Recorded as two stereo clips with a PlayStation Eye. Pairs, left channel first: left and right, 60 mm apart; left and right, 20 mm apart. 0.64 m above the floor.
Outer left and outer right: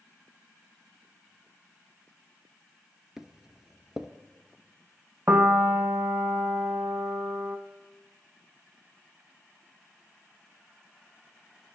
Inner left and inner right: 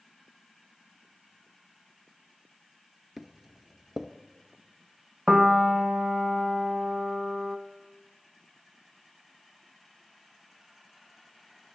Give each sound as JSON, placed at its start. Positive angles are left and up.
{"t": 3.2, "sound": "footsteps", "side_deg": -10, "distance_m": 0.6}
{"t": 5.3, "sound": "a piano", "side_deg": -35, "distance_m": 0.6}